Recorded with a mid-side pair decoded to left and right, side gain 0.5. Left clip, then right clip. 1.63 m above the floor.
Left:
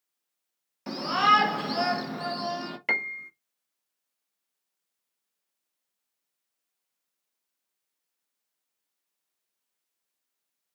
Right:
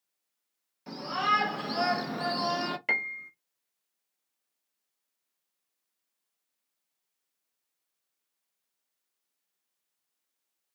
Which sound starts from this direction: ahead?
A piano, at 2.9 s.